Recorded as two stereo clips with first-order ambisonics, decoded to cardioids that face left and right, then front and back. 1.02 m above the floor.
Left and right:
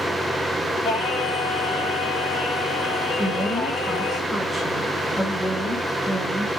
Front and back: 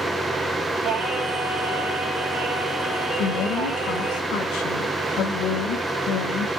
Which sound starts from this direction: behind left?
Singing, at 0.8 s.